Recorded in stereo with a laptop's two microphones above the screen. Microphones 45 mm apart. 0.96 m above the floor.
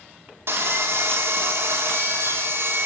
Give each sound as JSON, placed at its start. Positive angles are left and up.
{"t": 0.5, "sound": "sawing", "side_deg": -60, "distance_m": 2.0}